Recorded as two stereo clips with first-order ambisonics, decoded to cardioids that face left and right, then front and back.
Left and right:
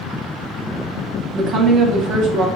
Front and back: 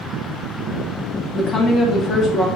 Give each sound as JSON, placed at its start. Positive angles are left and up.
{"t": 1.3, "sound": "a woman speaking", "azimuth_deg": -55, "distance_m": 0.7}